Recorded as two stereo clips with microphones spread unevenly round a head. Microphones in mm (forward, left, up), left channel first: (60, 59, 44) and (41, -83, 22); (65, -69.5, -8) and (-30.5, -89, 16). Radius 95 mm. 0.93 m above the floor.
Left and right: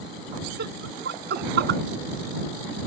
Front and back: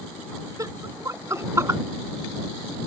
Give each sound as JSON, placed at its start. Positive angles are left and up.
{"t": 0.6, "sound": "laughter", "azimuth_deg": -115}